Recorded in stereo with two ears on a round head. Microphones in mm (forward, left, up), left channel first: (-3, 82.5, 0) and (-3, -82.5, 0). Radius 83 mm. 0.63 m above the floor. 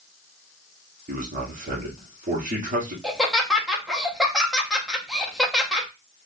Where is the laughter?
Centre (ahead or behind), 0.7 m.